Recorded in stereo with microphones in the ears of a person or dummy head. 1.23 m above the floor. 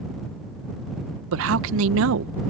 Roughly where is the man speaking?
Right.